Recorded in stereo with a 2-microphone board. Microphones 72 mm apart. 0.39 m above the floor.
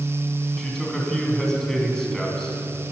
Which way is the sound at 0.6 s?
5° left (ahead or behind).